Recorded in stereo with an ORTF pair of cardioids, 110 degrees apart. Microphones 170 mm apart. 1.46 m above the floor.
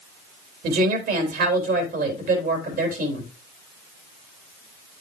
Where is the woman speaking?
65° right, 3 m.